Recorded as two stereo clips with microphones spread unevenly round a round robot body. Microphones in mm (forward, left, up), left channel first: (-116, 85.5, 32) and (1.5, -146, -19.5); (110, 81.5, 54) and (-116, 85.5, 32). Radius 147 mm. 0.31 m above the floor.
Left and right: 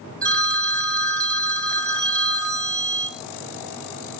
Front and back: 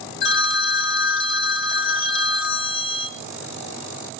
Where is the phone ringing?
25° left, 1.2 m.